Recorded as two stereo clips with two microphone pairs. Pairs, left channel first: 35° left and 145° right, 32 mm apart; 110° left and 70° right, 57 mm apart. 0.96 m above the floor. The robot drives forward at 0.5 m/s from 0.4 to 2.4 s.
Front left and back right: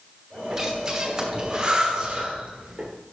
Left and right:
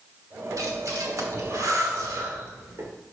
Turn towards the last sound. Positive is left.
turn(degrees=-85)